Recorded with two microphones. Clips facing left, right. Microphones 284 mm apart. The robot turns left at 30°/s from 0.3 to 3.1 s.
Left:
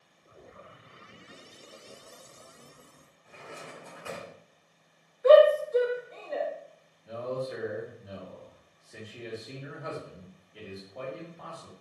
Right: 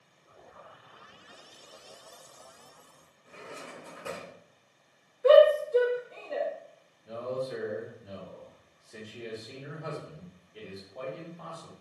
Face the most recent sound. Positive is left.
turn(degrees=0)  # may be behind; listen again after turning